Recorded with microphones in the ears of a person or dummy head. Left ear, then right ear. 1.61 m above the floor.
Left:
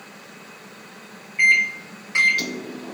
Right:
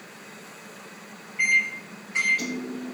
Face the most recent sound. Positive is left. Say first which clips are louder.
# left 5 dB
turn(degrees=30)  # may be behind; listen again after turning